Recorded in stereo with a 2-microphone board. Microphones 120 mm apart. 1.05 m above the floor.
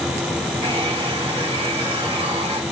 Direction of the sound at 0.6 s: 45° right (ahead or behind).